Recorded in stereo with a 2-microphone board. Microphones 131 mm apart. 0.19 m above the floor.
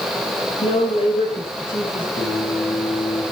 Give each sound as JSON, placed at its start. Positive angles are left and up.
{"t": 0.6, "sound": "a woman speaking", "side_deg": 55, "distance_m": 6.0}
{"t": 2.1, "sound": "singing", "side_deg": 60, "distance_m": 7.5}